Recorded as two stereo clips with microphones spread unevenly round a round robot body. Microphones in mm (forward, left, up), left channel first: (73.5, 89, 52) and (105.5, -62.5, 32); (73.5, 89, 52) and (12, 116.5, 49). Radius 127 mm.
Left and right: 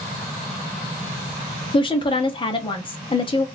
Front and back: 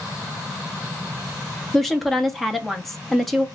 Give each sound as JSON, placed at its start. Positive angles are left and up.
{"t": 1.7, "sound": "a woman speaking", "azimuth_deg": 70, "distance_m": 1.1}